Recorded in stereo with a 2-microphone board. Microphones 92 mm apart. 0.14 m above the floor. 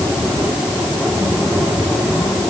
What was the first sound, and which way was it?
Only background noise.